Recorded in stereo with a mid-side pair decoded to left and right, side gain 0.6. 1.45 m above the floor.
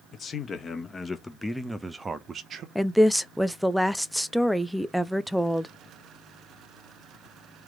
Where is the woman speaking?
Straight ahead, 0.5 m.